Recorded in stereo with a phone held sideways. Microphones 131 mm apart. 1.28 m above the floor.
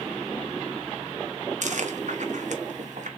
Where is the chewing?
65° right (ahead or behind), 0.8 m.